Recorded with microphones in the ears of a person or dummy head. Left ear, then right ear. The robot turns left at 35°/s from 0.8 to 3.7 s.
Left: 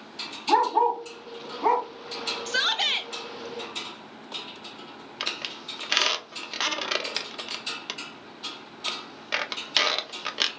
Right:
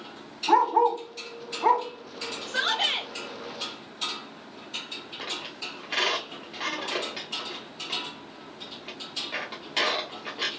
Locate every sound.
0.5 s a dog barking: 50° right (ahead or behind), 1.4 m; by 1.9 s 25° right (ahead or behind), 1.4 m
2.5 s a shout: 40° left (ahead or behind), 0.8 m; by 3.1 s 20° left (ahead or behind), 0.8 m
5.2 s a squeak: 55° left (ahead or behind), 0.6 m